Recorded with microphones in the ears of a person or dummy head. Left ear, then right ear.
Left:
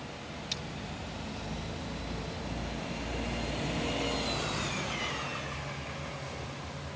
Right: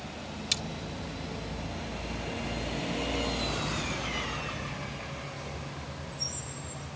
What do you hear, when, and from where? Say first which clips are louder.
0.5 s cutlery clinking: right 7 dB; 30° right (ahead or behind)